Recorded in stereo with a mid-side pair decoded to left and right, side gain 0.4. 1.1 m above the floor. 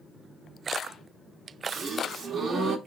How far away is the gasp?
About 1.9 m.